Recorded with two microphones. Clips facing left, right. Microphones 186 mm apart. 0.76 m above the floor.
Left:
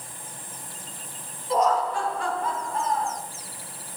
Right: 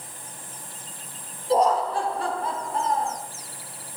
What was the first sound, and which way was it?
Laughter, 35° right (ahead or behind).